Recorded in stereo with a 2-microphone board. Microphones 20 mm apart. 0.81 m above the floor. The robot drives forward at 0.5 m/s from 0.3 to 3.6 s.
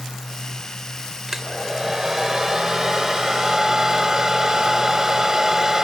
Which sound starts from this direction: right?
A hair dryer, at 1.3 s.